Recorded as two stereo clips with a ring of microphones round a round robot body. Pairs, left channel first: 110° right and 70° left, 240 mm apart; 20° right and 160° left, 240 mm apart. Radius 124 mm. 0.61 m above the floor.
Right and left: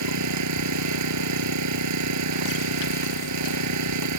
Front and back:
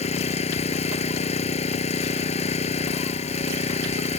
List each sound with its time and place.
0.0 s an engine running: 45° left